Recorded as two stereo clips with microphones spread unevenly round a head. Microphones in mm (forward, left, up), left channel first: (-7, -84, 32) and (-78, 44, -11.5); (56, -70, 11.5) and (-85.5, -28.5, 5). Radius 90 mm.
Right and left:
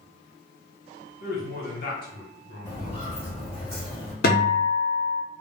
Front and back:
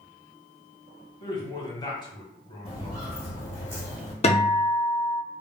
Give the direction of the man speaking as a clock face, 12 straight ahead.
2 o'clock.